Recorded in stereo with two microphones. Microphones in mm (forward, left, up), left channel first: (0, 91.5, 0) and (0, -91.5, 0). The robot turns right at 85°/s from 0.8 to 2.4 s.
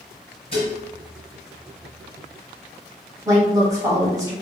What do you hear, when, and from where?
0.5 s dishes clattering: 35° left (ahead or behind), 1.6 m
3.2 s a woman speaking: 20° right (ahead or behind), 1.4 m